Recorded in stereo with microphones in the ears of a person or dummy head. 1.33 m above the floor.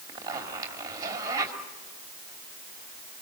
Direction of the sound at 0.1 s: 20° right (ahead or behind).